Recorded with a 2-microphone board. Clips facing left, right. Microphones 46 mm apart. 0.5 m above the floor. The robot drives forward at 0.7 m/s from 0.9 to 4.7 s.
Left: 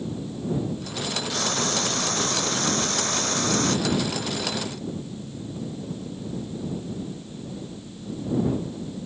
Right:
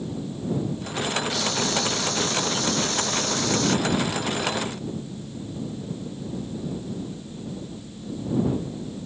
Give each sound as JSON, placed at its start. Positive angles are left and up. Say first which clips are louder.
{"t": 1.3, "sound": "frying", "louder": "right 1 dB", "side_deg": 45}
{"t": 3.9, "sound": "a gunshot", "louder": "right 1 dB", "side_deg": 55}